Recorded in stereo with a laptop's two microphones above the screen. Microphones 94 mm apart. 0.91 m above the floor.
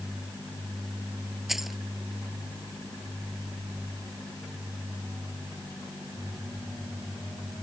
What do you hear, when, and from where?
1.5 s keys jangling: 5° right (ahead or behind)